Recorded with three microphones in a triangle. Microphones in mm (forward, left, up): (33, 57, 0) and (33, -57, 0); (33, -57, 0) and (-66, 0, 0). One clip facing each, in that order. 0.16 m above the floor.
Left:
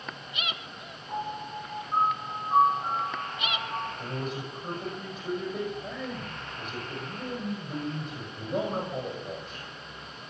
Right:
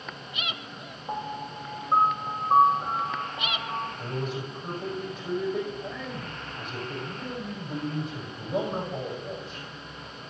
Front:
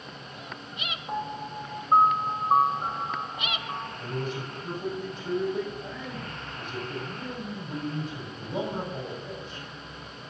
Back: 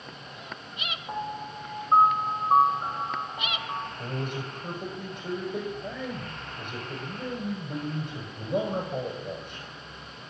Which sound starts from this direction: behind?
A man speaking, at 4.0 s.